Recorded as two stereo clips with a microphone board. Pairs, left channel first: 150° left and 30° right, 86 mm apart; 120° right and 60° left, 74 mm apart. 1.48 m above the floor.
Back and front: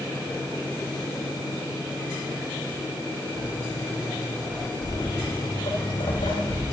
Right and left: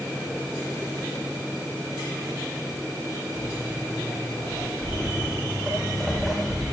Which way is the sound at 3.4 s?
80° left.